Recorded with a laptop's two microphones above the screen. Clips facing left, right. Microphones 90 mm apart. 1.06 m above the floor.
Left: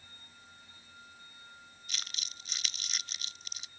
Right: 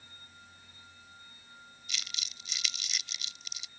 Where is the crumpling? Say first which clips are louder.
Right 1 dB; 45° left (ahead or behind).